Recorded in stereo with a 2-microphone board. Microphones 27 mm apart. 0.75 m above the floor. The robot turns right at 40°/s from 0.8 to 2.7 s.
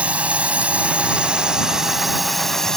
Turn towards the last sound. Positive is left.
turn(degrees=20)